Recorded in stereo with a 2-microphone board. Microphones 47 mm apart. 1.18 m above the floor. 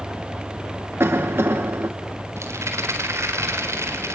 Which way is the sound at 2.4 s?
80° right.